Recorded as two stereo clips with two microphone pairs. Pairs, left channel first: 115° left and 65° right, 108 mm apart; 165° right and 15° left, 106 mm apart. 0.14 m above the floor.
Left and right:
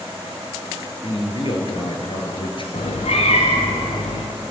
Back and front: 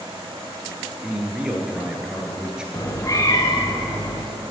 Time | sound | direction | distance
1.0 | a man speaking | 95° left | 2.5 m
2.7 | a cat meowing | 135° left | 2.5 m